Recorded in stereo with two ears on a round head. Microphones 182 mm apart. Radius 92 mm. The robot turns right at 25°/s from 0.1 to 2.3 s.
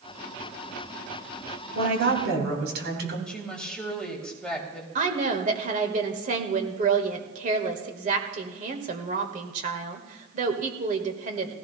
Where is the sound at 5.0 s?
40° right (ahead or behind), 1.6 m.